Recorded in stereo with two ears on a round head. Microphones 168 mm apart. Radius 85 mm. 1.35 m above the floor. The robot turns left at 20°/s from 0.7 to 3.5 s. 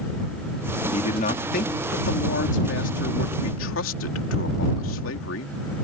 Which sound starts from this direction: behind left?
A man speaking, at 0.9 s.